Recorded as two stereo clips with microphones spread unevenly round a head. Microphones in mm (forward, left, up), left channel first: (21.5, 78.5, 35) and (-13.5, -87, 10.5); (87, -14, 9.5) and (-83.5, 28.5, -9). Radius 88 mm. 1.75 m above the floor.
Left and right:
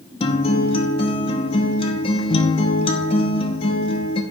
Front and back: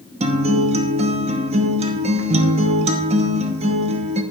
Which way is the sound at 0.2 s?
115° left.